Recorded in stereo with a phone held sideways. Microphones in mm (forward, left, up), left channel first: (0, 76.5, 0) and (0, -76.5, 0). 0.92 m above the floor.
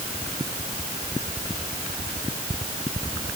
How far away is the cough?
I don't hear a cough.